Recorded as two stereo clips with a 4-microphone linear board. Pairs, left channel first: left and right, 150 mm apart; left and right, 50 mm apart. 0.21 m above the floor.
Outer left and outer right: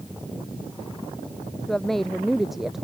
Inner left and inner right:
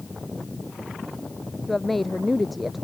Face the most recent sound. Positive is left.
turn(degrees=-5)  # may be behind; listen again after turning